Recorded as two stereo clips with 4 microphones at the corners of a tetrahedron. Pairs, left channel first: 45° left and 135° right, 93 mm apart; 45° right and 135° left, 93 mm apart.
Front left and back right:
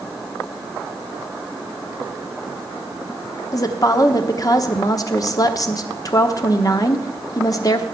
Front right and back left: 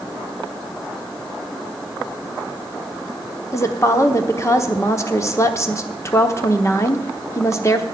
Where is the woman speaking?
5° left, 1.0 m.